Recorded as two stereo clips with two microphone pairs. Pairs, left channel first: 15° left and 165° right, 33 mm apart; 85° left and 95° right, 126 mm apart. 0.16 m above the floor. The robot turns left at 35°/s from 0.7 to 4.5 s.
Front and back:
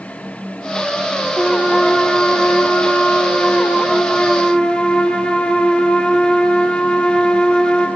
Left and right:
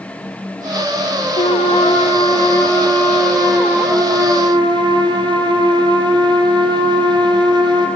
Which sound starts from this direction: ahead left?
A trumpet, at 1.4 s.